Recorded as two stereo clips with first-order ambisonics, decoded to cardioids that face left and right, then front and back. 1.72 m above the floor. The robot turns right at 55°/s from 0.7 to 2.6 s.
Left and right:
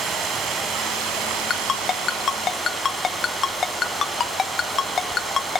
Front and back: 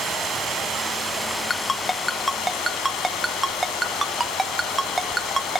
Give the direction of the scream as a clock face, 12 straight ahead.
I don't hear a scream.